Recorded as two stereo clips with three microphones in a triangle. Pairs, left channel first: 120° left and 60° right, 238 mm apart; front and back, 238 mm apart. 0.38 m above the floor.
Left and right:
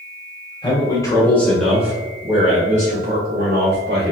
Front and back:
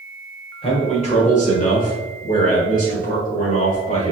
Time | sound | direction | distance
0.6 | a man speaking | 60° left | 1.4 m